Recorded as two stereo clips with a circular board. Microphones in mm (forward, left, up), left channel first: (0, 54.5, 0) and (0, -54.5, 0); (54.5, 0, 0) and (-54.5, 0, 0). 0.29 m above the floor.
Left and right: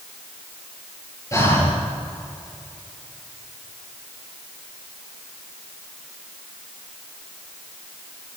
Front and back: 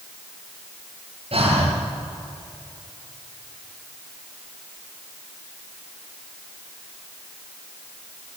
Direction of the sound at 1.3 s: 150° left.